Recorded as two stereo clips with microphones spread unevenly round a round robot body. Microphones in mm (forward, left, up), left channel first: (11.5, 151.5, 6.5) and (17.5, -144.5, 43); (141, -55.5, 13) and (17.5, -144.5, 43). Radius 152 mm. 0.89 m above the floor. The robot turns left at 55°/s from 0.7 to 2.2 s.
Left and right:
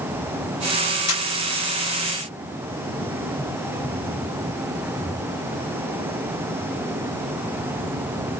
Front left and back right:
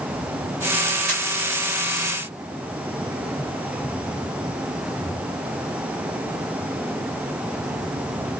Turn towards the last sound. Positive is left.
turn(degrees=95)